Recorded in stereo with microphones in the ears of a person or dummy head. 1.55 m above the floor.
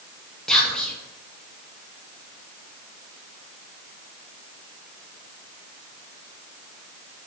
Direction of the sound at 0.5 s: Centre (ahead or behind).